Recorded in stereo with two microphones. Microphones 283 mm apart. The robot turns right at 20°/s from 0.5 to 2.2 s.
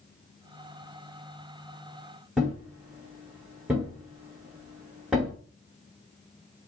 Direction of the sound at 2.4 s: 5° right (ahead or behind).